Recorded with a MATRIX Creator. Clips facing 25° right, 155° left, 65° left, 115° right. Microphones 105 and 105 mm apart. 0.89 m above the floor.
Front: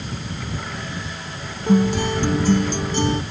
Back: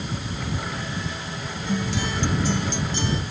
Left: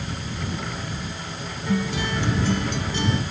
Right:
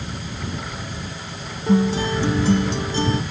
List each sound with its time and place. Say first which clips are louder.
1.7 s a guitar: front 9 dB, right 7 dB; 60° right